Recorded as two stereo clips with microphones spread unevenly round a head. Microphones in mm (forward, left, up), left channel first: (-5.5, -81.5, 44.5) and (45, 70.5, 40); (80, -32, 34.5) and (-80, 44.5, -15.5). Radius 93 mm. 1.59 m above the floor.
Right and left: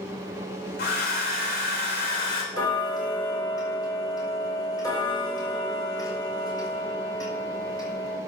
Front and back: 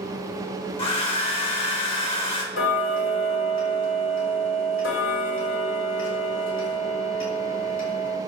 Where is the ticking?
40° right, 4 m.